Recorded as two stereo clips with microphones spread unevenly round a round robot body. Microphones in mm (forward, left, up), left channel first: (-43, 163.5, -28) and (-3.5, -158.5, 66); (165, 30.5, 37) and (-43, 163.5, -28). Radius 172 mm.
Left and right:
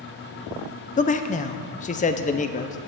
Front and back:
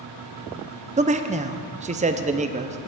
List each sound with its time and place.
1.0 s a man speaking: 130° left, 0.6 m